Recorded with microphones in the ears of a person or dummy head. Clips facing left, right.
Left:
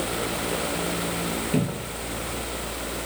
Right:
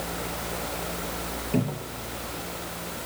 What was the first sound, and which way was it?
A cupboard door, 15° left (ahead or behind).